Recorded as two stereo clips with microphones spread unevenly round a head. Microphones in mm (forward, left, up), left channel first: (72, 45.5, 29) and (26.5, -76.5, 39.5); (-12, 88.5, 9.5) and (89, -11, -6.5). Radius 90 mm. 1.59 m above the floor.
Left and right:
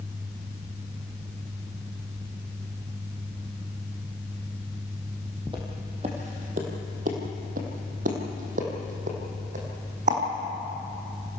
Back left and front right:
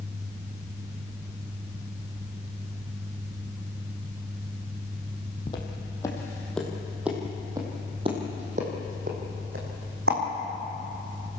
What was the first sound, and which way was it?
Footsteps, 170° right.